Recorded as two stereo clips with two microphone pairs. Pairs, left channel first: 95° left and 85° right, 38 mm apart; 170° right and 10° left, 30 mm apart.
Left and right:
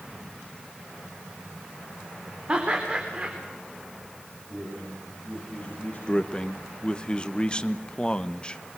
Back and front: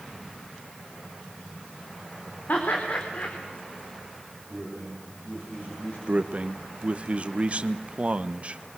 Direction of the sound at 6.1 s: 40° left.